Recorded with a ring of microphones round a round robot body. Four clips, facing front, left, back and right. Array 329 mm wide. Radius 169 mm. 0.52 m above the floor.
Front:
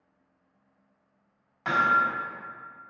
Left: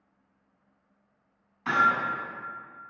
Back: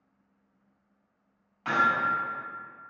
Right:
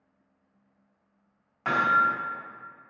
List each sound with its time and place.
1.6 s hammering: 75° right, 2.5 m